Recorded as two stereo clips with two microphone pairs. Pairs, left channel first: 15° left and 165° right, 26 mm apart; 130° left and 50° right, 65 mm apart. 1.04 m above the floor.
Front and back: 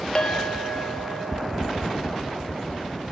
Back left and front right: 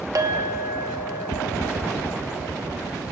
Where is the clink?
35° right, 1.0 m.